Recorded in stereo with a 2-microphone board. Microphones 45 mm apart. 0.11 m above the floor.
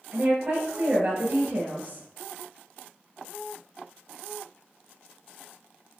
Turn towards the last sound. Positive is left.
turn(degrees=-35)  # may be behind; listen again after turning